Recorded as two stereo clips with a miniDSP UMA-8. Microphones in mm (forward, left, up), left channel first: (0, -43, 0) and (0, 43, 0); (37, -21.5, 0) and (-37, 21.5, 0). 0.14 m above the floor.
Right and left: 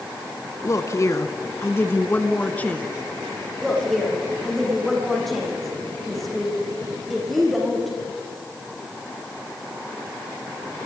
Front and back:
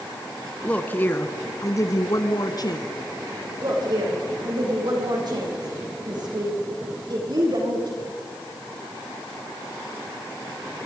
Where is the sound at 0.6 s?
95° right, 1.3 m; by 2.9 s 20° right, 1.7 m.